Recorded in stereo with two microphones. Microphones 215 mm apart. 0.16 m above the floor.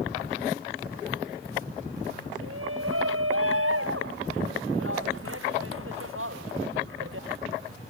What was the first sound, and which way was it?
A shout, 85° right.